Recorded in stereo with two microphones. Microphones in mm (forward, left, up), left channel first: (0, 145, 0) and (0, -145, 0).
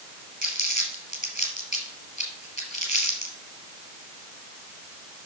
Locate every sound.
0.4 s crumpling: 30° right (ahead or behind), 3 m